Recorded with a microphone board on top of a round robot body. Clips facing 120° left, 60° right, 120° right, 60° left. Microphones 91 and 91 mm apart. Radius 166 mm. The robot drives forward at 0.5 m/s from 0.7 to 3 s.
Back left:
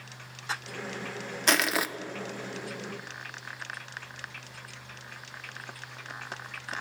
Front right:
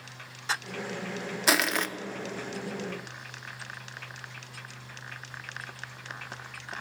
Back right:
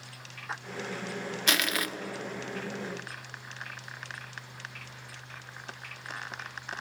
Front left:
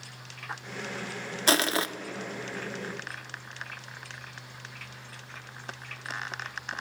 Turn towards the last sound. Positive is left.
turn(degrees=165)